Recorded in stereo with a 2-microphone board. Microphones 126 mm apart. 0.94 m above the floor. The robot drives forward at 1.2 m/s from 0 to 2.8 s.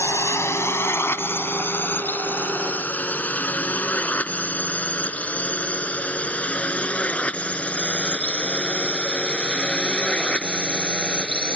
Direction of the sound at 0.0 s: 25° left (ahead or behind).